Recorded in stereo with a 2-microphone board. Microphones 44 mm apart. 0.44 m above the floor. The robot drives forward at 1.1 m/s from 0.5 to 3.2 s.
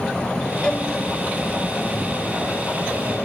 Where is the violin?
20° left (ahead or behind), 1.1 m; by 0.9 s 25° left (ahead or behind), 0.8 m.